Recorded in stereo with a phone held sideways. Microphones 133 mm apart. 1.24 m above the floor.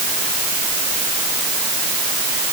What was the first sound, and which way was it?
Only background noise.